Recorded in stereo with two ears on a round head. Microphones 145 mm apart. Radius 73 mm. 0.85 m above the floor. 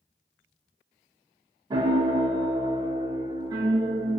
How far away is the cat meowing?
No cat meowing in this recording.